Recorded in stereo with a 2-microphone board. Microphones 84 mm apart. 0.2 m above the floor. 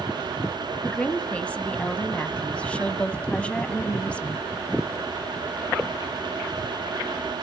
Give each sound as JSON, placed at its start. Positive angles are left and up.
{"t": 0.8, "sound": "a woman speaking", "side_deg": 15, "distance_m": 1.1}